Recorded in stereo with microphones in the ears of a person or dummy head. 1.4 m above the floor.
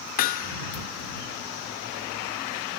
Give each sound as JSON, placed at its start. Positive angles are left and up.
{"t": 0.2, "sound": "hammering", "side_deg": 45}